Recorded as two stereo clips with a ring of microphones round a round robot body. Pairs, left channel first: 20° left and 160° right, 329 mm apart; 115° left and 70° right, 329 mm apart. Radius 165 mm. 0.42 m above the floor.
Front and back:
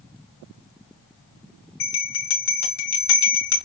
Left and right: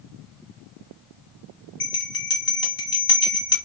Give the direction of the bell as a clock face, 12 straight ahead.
11 o'clock.